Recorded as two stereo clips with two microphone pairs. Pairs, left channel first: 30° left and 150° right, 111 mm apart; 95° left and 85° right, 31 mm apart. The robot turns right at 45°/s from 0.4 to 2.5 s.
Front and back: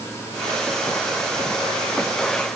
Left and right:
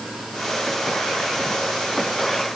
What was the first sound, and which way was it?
Only background noise.